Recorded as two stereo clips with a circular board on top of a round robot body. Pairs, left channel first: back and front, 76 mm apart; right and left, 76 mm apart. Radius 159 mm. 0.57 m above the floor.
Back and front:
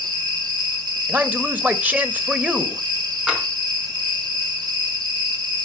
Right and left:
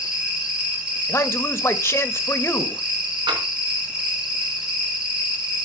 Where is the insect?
10° left, 4.5 m.